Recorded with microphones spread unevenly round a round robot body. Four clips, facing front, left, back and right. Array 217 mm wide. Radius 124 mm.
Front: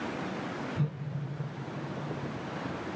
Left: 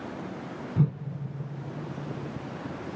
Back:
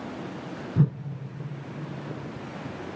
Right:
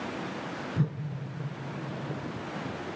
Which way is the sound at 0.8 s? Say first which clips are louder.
Left 5 dB, back 13 dB; 160° left.